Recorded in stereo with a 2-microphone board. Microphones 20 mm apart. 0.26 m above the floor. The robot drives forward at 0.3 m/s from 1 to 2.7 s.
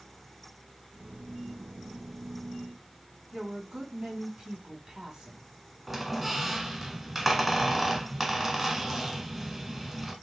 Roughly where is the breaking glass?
No breaking glass in this recording.